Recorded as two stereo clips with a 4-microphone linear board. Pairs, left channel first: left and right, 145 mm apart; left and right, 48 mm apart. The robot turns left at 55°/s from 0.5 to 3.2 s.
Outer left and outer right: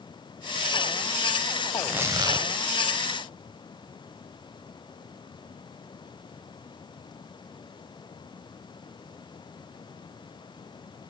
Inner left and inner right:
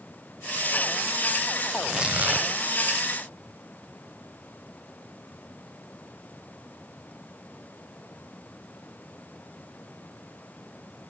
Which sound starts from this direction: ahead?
Tearing paper, at 1.7 s.